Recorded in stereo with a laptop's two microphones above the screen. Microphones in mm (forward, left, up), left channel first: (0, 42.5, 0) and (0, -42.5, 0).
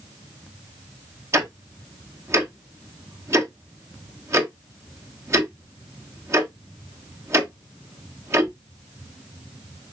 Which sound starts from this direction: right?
Ticking, at 1.3 s.